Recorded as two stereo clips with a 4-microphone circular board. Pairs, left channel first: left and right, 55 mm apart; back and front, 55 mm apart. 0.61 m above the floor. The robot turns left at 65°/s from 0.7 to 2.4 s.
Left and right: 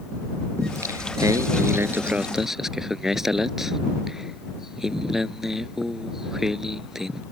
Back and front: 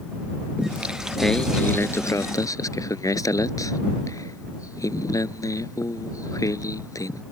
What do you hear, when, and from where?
0.6 s singing: 65° right; by 7.2 s 175° right